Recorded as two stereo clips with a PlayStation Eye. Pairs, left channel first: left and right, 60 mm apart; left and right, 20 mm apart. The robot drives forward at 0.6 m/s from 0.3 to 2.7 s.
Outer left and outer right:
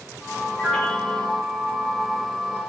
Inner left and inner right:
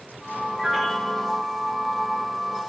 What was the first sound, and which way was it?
A piano, 15° left (ahead or behind).